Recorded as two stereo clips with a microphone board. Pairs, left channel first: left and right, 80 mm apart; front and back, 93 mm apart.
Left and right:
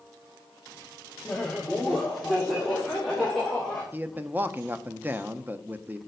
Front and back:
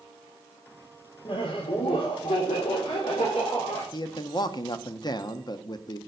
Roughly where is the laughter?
Ahead.